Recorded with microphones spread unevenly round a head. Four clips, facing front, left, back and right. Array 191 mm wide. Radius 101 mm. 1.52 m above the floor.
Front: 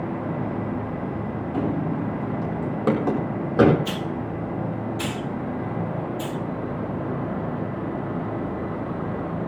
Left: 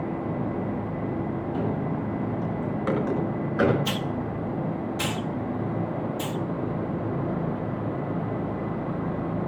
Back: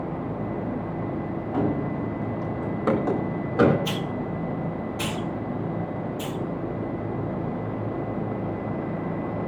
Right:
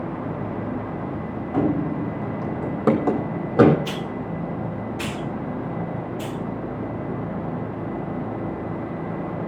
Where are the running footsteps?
90° right, 3.5 m; by 3.8 s 65° right, 4.5 m.